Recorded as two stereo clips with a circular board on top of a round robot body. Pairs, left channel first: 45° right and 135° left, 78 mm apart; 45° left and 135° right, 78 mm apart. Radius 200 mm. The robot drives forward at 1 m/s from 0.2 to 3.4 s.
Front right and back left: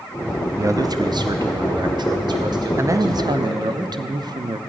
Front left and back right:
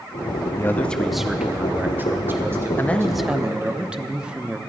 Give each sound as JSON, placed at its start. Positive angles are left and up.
{"t": 0.6, "sound": "a man speaking", "azimuth_deg": 90, "distance_m": 0.8}
{"t": 2.8, "sound": "a man speaking", "azimuth_deg": 95, "distance_m": 0.7}